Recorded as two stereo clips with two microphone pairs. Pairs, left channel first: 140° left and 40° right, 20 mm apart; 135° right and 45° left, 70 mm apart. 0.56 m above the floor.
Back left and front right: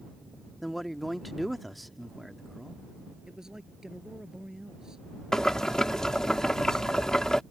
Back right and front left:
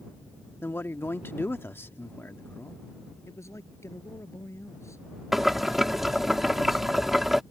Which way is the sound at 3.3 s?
90° right.